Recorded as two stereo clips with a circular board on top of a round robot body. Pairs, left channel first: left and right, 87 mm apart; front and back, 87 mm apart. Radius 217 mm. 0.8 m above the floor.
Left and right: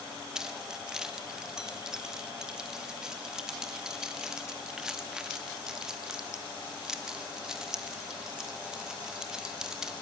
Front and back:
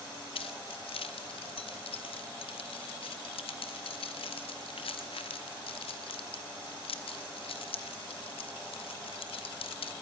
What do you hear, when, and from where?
0.3 s keys jangling: 5° right, 0.8 m